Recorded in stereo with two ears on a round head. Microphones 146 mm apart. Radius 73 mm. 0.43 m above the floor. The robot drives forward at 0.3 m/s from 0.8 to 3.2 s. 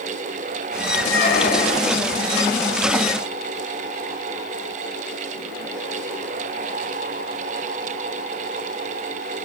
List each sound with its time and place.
1.0 s a squeak: 65° left (ahead or behind), 5 m; by 2.0 s 60° left (ahead or behind), 5 m